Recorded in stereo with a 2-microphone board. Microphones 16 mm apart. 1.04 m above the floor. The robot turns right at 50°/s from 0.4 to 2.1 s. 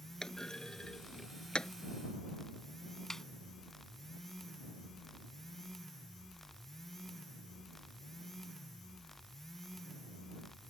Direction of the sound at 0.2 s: 45° left (ahead or behind).